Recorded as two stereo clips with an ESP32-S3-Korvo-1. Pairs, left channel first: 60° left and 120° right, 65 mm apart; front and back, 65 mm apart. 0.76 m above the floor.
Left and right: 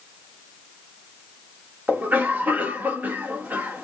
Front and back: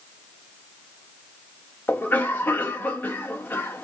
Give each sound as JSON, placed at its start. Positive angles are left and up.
{"t": 1.9, "sound": "a cough", "azimuth_deg": -55, "distance_m": 1.4}